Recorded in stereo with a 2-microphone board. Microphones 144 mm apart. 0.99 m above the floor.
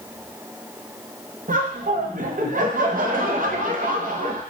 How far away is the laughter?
About 0.6 m.